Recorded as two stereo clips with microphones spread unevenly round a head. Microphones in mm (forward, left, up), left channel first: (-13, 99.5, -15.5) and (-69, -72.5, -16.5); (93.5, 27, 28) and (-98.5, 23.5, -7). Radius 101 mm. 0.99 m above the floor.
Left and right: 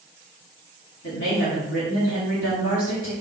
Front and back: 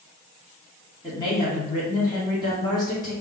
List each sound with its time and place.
1.0 s a woman speaking: 70° left, 3 m